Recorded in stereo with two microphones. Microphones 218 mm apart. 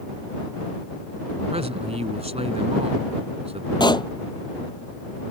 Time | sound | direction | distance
1.5 | a man speaking | 30° right (ahead or behind) | ?
3.8 | a pop | 20° left (ahead or behind) | ?